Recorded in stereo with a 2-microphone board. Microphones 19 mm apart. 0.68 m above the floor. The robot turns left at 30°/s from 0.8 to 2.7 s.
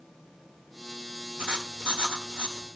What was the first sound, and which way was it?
Writing, 55° right.